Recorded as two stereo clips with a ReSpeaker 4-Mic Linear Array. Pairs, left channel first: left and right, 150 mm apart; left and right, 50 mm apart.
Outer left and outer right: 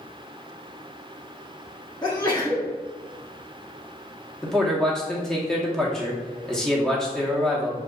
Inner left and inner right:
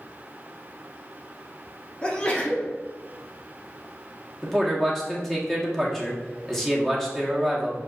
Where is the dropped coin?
No dropped coin in this recording.